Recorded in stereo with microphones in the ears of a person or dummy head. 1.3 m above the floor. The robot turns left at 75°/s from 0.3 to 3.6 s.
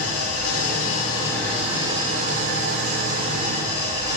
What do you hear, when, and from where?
0.0 s an engine running: 90° left, 5.5 m; by 4.2 s 155° right, 5.5 m